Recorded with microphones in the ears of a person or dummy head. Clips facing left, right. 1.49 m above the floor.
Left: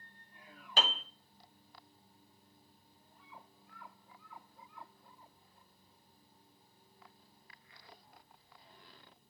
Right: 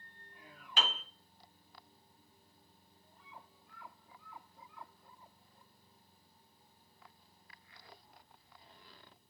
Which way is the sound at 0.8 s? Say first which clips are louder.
Left 3 dB; 35° left (ahead or behind).